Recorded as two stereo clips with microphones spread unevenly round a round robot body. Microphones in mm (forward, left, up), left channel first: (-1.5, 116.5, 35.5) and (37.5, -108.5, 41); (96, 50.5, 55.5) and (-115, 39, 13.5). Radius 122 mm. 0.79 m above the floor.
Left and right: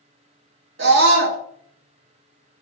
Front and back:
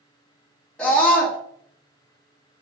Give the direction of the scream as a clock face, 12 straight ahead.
3 o'clock.